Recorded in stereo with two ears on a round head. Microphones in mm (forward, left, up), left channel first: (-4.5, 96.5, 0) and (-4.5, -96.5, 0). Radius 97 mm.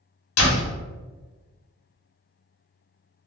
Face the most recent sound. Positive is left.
turn(degrees=70)  # may be behind; listen again after turning